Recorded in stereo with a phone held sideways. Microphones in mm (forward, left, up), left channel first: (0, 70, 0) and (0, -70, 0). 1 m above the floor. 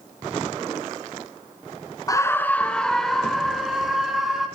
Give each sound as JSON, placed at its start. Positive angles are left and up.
{"t": 2.1, "sound": "a scream", "side_deg": 25, "distance_m": 0.5}